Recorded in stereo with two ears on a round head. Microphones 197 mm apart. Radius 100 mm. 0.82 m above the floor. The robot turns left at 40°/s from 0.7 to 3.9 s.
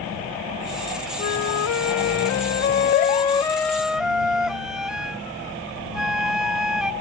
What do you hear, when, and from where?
1.2 s a flute: 105° left; by 6.9 s 5° right